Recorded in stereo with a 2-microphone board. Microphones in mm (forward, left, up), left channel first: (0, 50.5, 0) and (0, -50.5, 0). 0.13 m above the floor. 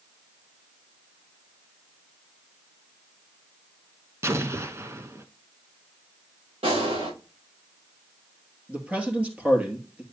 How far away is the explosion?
About 0.7 m.